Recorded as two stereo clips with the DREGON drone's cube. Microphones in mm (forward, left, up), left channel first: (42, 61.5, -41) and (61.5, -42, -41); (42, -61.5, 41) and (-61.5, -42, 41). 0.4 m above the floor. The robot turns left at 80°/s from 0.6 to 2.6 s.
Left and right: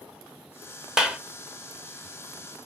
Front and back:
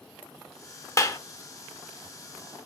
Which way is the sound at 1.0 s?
5° right.